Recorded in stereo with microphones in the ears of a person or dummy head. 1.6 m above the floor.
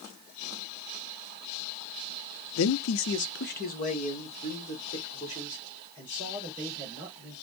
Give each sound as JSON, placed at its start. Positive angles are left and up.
{"t": 2.6, "sound": "a man speaking", "side_deg": 70, "distance_m": 0.6}